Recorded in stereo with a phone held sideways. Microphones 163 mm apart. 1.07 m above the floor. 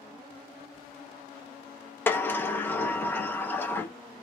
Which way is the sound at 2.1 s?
10° left (ahead or behind).